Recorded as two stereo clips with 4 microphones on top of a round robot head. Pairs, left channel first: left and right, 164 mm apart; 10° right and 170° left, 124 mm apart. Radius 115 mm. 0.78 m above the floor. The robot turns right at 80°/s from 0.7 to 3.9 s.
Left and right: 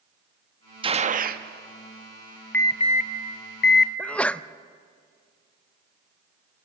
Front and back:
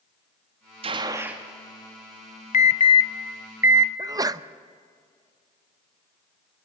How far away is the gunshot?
About 1.1 m.